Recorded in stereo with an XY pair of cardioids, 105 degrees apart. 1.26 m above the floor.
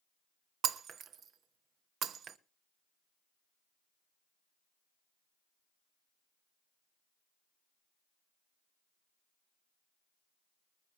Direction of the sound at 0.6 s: 65° right.